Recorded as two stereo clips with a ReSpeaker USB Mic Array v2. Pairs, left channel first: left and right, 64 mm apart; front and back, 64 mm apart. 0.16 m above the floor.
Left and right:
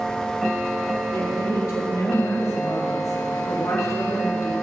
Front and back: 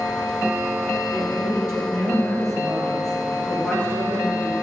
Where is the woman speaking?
110° left, 3.5 m; by 4.5 s 60° left, 3.5 m.